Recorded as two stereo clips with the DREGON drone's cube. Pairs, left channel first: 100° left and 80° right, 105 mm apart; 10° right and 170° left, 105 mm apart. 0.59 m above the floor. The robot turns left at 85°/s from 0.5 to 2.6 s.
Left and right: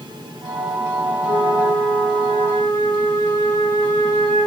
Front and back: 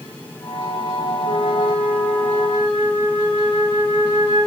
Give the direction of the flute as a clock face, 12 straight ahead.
7 o'clock.